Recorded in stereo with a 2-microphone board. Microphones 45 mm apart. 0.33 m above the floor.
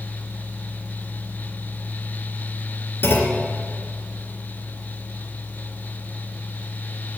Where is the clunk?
55° left (ahead or behind), 2.5 m.